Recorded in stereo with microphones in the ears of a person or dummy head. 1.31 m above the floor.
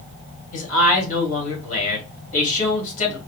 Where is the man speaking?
45° left (ahead or behind), 2.5 m.